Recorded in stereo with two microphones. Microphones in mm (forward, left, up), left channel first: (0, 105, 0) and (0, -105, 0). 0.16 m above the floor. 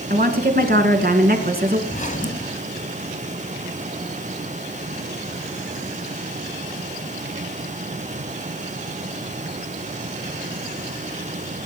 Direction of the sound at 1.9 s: 35° left (ahead or behind).